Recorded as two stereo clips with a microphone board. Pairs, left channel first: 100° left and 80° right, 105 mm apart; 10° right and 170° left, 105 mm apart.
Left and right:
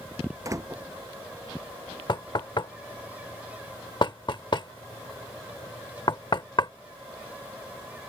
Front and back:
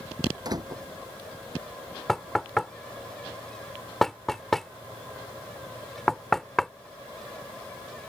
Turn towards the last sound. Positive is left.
turn(degrees=75)